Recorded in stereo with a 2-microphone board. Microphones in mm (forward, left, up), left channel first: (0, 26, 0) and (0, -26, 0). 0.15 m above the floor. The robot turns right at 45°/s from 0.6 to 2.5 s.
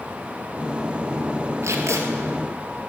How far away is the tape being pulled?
About 1.9 m.